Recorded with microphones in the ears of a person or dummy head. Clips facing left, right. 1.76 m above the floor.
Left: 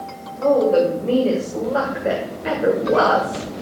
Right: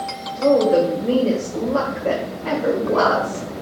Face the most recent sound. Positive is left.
turn(degrees=55)  # may be behind; listen again after turning